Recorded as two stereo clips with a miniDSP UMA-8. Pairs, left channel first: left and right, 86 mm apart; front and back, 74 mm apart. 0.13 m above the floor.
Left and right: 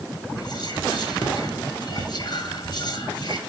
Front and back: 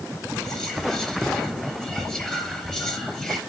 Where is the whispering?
80° left, 2.5 m.